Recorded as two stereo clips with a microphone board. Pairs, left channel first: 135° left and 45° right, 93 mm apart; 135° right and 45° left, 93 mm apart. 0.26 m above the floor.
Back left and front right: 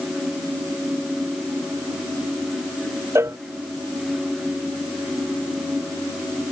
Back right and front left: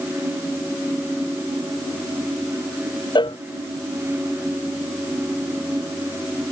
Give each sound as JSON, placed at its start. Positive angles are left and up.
{"t": 3.1, "sound": "a cowbell", "azimuth_deg": -105}